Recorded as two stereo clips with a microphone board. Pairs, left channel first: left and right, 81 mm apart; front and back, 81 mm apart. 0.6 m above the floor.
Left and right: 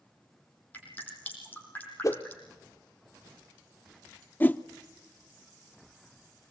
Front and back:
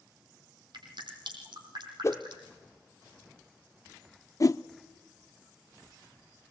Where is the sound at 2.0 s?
50° left, 0.8 m.